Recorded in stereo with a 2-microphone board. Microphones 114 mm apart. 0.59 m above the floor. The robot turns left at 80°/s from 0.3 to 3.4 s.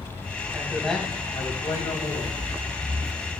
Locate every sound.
0.5 s a man speaking: 155° right, 4 m; by 2.4 s 60° left, 4 m